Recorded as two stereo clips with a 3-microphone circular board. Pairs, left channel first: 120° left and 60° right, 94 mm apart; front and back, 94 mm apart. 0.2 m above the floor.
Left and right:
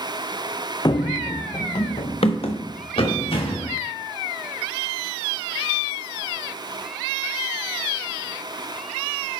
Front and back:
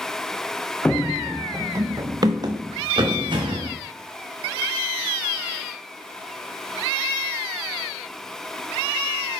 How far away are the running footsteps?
About 0.6 m.